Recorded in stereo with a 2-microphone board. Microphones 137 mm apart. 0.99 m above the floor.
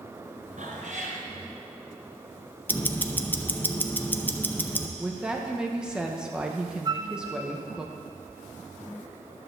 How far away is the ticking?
About 0.6 m.